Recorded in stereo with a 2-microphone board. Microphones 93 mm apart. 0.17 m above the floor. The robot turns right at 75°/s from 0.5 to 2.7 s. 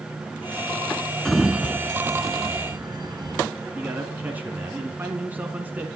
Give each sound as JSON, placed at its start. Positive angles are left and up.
{"t": 1.2, "sound": "a sliding door", "side_deg": 5, "distance_m": 0.8}
{"t": 3.8, "sound": "a man speaking", "side_deg": -20, "distance_m": 1.9}